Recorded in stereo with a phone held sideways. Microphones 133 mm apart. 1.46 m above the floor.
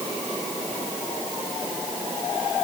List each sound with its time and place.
Only background noise.